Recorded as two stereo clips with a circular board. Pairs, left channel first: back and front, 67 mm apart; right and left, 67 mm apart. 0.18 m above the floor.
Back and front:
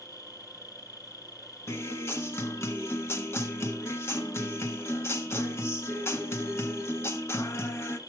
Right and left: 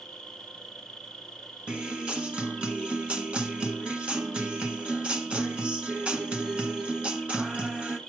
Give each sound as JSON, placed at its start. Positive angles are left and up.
{"t": 0.0, "sound": "an insect", "azimuth_deg": -170, "distance_m": 1.1}
{"t": 1.7, "sound": "a guitar", "azimuth_deg": 155, "distance_m": 1.8}